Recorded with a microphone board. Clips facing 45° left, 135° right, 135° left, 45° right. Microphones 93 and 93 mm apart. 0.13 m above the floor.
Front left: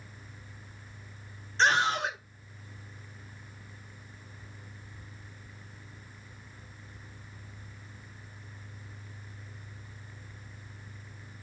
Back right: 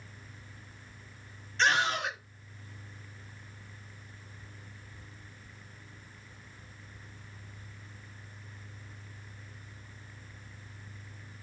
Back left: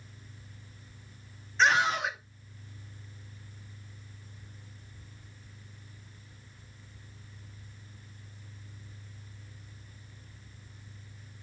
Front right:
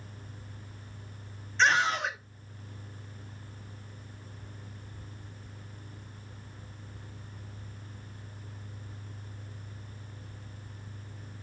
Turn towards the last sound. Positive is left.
turn(degrees=55)